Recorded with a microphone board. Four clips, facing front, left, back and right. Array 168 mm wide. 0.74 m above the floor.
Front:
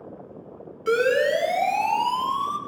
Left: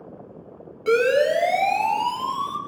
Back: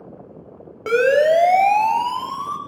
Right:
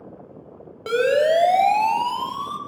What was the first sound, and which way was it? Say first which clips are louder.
A siren: even, back 5 dB; 160° right.